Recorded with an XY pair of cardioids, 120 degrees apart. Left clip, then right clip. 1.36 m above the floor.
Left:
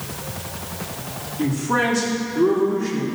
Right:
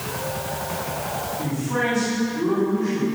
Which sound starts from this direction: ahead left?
A man speaking, at 1.4 s.